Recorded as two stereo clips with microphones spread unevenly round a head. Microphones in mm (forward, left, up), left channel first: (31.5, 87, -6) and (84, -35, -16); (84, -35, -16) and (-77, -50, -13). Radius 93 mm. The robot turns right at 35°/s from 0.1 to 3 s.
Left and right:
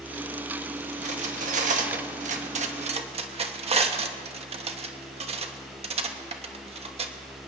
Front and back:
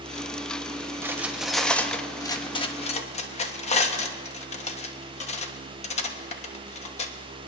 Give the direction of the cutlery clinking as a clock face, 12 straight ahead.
3 o'clock.